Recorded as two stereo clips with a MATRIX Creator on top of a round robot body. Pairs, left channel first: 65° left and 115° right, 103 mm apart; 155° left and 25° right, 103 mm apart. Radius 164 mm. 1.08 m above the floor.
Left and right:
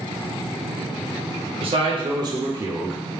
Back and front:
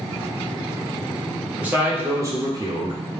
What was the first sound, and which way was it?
A man speaking, 95° right.